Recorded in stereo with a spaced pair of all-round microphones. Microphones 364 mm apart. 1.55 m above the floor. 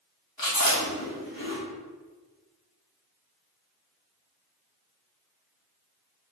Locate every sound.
0.4 s chewing: 65° left (ahead or behind), 1.4 m